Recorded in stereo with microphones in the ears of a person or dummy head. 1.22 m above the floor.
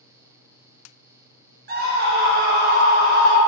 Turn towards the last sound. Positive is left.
turn(degrees=-45)  # may be behind; listen again after turning